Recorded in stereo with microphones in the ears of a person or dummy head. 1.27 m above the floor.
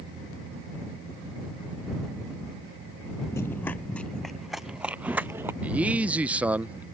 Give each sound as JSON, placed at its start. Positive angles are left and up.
{"t": 3.3, "sound": "running footsteps", "side_deg": 5}
{"t": 5.6, "sound": "a man speaking", "side_deg": -15}